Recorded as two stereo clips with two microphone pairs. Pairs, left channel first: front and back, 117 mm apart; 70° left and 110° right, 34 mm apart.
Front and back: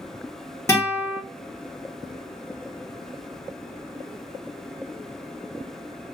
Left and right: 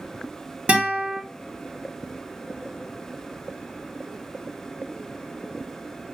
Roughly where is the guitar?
Ahead right.